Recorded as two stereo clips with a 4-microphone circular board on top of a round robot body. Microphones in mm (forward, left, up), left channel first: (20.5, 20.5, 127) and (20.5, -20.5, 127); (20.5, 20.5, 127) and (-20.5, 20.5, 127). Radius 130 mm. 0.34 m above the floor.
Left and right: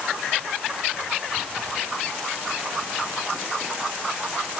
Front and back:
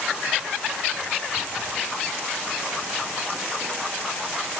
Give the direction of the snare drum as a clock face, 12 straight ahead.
No snare drum in this recording.